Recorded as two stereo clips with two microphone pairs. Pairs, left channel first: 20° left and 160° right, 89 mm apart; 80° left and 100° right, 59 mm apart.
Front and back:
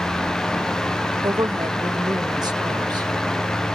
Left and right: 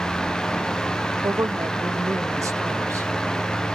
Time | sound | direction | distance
1.2 | a woman speaking | 120° right | ?